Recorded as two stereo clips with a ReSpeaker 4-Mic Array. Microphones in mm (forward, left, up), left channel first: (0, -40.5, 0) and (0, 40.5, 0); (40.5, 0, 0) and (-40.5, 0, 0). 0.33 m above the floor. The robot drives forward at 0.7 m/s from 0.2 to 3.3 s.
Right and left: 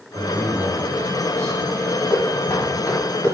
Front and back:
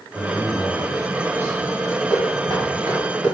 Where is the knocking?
135° right, 1.7 m; by 3.3 s 150° right, 2.5 m.